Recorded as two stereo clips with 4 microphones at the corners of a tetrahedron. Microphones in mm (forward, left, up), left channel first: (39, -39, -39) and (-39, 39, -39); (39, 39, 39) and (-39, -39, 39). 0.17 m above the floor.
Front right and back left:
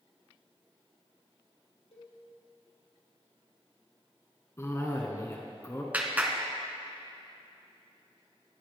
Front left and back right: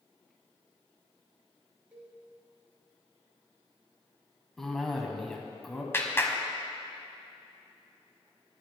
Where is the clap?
80° left, 1.2 m.